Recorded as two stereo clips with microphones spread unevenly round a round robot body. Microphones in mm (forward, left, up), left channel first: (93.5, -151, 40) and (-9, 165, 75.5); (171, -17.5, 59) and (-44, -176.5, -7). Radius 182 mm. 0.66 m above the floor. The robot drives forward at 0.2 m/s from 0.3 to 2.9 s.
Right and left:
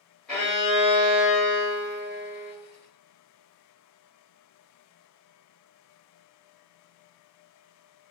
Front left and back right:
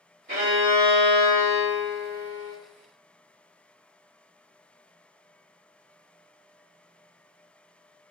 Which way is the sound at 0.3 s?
155° right.